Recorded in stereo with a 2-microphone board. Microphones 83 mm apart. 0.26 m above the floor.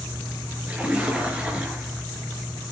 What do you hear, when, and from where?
0.7 s a splash: 15° right (ahead or behind), 5 m